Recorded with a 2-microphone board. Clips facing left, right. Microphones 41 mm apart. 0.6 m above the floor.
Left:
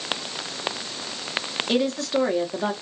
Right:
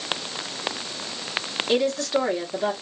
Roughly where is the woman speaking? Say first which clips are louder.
Right 1 dB; centre.